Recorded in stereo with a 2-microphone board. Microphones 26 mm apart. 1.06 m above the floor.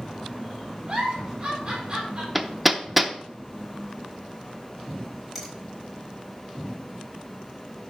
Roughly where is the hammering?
Centre.